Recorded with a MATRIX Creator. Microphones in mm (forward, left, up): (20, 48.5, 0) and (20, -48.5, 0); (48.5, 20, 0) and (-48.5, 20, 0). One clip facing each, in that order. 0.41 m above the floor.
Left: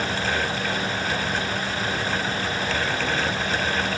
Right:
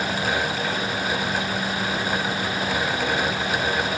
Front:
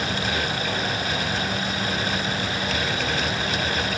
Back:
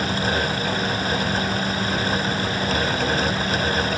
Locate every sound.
Only background noise.